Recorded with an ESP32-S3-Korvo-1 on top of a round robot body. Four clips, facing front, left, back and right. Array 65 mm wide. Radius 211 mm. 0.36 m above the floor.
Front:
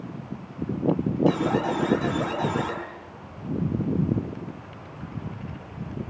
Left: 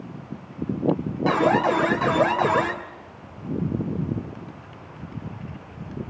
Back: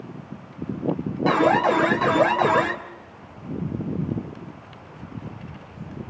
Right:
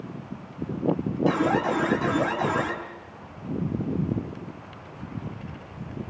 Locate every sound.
1.3 s an alarm: 150° left, 3.5 m